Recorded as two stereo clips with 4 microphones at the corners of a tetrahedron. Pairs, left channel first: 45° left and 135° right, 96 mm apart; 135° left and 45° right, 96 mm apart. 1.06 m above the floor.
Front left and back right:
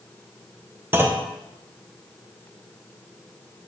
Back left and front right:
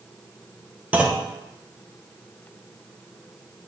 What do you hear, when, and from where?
0.9 s a clunk: 100° right, 0.7 m